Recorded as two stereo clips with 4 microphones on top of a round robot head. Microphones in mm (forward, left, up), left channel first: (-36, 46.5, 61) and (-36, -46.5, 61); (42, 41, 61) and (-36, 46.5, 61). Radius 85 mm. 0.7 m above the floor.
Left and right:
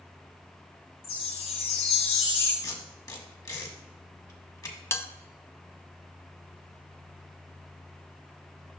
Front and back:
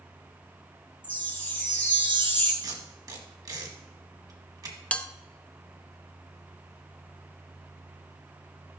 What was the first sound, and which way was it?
A chime, 60° left.